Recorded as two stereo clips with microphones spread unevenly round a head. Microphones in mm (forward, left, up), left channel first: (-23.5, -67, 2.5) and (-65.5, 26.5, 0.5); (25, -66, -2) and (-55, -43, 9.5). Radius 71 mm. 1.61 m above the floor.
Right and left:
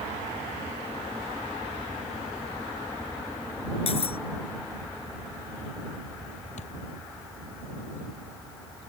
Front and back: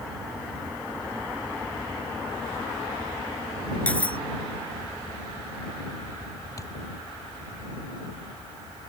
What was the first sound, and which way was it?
Cutlery clinking, 90° right.